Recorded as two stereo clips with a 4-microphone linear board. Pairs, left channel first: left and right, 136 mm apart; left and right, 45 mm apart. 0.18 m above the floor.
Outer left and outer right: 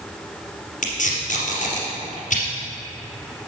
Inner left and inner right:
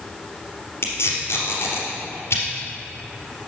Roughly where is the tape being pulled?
Left.